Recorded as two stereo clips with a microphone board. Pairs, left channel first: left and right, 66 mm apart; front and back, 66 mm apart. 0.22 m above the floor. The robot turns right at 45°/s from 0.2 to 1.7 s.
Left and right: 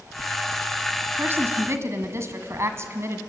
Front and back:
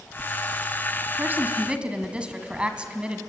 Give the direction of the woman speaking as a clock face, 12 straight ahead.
4 o'clock.